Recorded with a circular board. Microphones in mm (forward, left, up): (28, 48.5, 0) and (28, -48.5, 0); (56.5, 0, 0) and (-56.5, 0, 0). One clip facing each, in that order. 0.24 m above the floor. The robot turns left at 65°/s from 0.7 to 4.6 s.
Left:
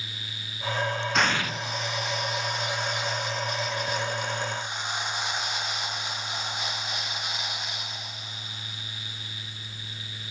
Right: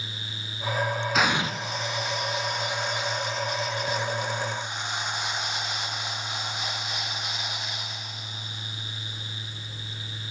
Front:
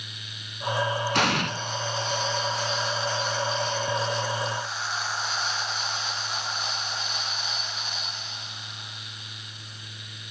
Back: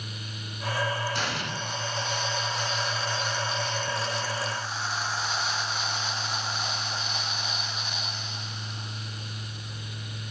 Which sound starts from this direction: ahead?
An explosion, at 1.1 s.